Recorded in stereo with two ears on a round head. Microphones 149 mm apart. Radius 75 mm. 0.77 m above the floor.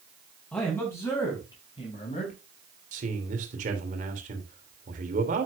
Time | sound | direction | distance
0.5 | a man speaking | 10° left (ahead or behind) | 5 m
2.9 | a man speaking | 50° right (ahead or behind) | 3 m